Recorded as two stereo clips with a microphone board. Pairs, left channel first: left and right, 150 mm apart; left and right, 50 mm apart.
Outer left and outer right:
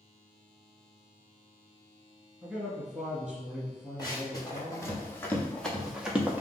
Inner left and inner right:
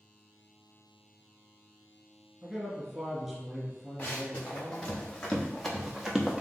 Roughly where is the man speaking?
Centre.